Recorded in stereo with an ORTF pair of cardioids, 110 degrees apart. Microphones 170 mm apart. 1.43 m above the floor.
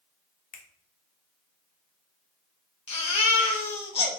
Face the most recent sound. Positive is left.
turn(degrees=35)